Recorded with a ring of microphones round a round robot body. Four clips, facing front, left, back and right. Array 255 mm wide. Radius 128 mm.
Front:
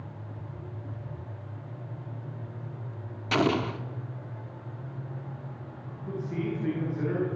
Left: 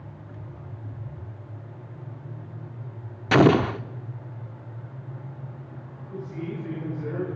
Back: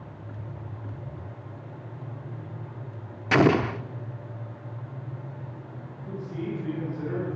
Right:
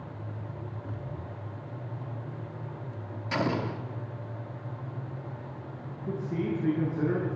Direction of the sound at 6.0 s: 80° right.